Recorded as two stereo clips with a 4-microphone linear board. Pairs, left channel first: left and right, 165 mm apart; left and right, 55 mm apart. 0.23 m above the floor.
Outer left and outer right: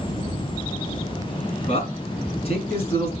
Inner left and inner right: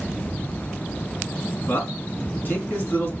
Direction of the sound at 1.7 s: 40° left (ahead or behind).